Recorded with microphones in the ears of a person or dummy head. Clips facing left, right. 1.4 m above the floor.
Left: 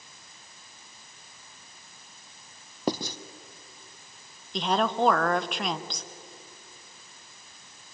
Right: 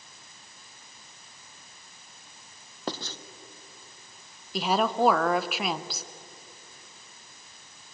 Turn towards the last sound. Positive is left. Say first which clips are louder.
# right 1 dB
turn(degrees=-5)  # may be behind; listen again after turning